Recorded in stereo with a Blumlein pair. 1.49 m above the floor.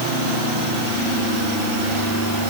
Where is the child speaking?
No child speaking in this recording.